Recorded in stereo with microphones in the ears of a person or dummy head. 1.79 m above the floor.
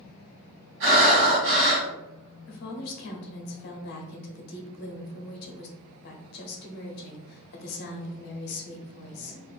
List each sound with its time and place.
0.8 s breathing: 70° right (ahead or behind), 1.5 m
2.5 s a woman speaking: 55° left (ahead or behind), 0.7 m